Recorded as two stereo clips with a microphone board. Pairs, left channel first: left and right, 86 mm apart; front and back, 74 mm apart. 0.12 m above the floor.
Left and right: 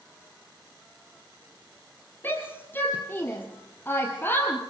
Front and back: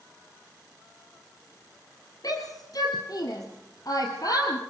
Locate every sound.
2.2 s a shout: 25° left, 2.5 m